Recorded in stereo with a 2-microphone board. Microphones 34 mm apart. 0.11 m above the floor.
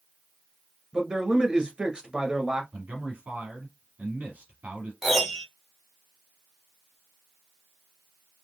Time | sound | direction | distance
0.9 | a man speaking | 25° right (ahead or behind) | 1.5 m
2.7 | a man speaking | 50° right (ahead or behind) | 2.5 m
5.0 | a piano | 5° left (ahead or behind) | 2 m